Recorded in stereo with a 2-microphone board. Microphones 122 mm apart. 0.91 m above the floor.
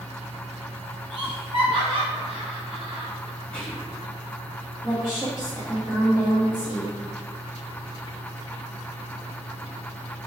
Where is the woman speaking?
5° right (ahead or behind), 1.2 m.